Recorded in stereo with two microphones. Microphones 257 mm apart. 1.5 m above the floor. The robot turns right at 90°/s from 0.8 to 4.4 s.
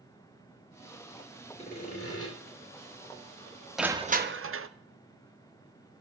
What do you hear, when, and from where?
1.6 s sawing: 30° left, 3.5 m; by 2.3 s 95° left, 3.5 m
3.8 s crushing: straight behind, 0.6 m; by 4.7 s 125° right, 0.6 m